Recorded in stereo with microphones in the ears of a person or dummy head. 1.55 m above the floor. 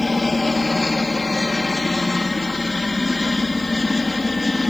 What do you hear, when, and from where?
0.0 s a helicopter: centre (ahead or behind)